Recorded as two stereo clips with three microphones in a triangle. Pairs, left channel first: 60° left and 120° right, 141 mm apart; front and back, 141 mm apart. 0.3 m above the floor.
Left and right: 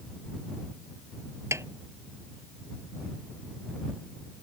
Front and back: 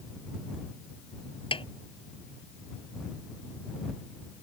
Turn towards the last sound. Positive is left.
turn(degrees=-50)